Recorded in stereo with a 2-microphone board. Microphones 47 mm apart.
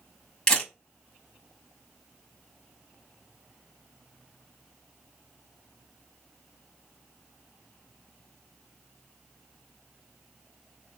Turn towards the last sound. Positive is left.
turn(degrees=20)  # may be behind; listen again after turning